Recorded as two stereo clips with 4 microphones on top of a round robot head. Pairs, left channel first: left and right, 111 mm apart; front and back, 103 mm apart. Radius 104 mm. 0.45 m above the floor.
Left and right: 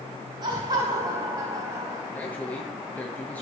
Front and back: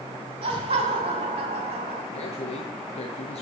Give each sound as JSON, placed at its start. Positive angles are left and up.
{"t": 0.4, "sound": "laughter", "azimuth_deg": -145, "distance_m": 4.5}
{"t": 2.1, "sound": "a man speaking", "azimuth_deg": 15, "distance_m": 7.5}